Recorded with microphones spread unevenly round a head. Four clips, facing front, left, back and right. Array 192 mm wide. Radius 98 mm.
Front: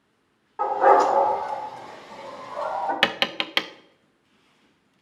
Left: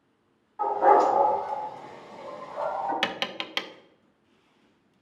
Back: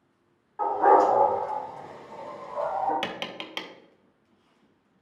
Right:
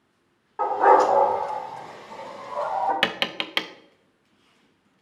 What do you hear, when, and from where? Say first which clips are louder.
0.6 s a dog barking: right 3 dB, front 2 dB; 70° right, 3 m; by 2.9 s 105° right, 3.5 m
3.0 s tapping: right 4 dB, front 8 dB; 35° right, 0.6 m